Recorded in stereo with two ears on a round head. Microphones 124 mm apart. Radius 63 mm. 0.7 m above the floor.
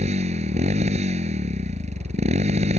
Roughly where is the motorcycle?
Right.